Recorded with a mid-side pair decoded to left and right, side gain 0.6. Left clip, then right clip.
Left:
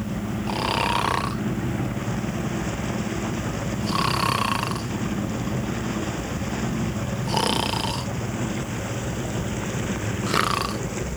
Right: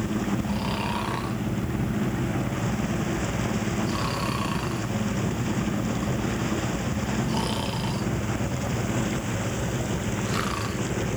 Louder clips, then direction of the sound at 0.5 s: Left 6 dB; 45° left.